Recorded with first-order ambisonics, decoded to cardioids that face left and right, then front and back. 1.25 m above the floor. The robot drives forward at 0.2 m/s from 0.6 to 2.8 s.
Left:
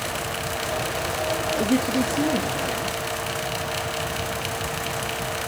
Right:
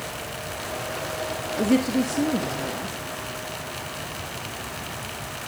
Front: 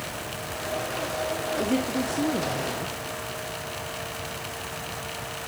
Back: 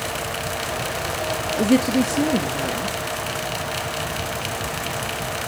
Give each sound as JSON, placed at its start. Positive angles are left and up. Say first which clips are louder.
{"t": 1.6, "sound": "a woman speaking", "louder": "even, back 10 dB", "azimuth_deg": -165, "distance_m": 1.8}